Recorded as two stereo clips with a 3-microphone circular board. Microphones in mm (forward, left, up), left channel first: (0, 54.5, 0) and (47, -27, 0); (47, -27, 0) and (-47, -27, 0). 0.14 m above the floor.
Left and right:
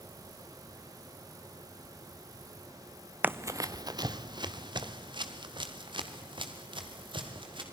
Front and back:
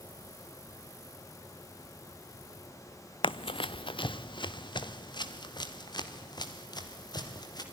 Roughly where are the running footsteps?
Ahead.